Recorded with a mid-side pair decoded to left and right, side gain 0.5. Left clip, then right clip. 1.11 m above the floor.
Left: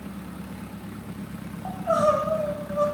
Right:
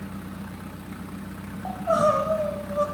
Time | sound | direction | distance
1.6 | crying | 5° right | 1.4 m